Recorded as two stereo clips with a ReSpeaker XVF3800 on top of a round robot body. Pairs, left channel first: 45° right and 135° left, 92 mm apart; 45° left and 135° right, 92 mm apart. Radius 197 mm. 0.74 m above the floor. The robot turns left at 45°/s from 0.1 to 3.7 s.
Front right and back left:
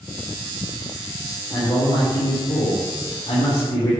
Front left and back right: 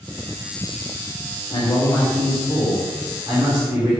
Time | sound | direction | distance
1.5 | a man speaking | 25° left | 3.5 m